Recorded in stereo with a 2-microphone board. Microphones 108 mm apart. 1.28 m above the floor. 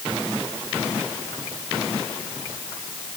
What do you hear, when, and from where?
Only background noise.